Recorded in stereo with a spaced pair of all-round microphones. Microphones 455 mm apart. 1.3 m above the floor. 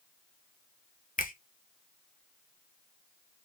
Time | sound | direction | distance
1.2 | a finger snap | 20° left (ahead or behind) | 0.8 m